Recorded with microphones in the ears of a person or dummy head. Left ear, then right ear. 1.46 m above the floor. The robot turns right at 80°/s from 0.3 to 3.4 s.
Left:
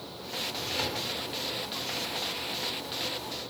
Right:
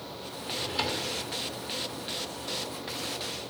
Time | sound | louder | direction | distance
0.5 | a drawer | right 3 dB | 45° right | 2.5 m